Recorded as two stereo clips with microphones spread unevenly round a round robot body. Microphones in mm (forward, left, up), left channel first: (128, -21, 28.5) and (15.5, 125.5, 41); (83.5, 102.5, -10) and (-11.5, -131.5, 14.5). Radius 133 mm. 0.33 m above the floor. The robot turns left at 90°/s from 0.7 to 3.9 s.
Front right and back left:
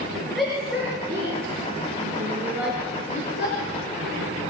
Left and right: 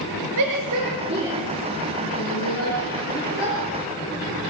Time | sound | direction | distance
0.4 | a shout | 145° right | 5.5 m